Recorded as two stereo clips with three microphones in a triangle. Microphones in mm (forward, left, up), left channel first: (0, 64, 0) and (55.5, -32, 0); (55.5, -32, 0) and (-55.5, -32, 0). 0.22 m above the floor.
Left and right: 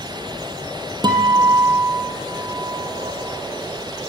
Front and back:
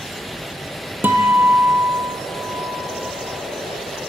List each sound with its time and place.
1.0 s a guitar: 105° right, 2 m